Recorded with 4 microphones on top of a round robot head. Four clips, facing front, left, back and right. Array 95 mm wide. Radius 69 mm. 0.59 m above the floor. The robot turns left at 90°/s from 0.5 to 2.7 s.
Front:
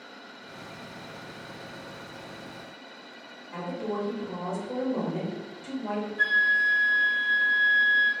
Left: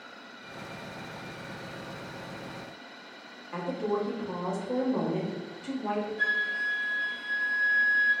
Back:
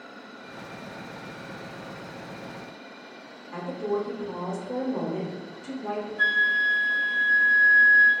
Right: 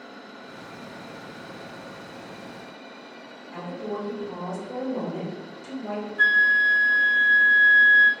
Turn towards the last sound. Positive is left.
turn(degrees=-90)